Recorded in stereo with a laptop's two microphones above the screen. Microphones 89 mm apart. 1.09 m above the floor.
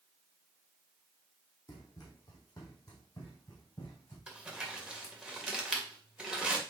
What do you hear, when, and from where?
1.7 s running footsteps: 45° left (ahead or behind), 2.5 m; by 4.2 s 40° left (ahead or behind), 3.5 m
4.3 s crumpling: 10° right (ahead or behind), 2.0 m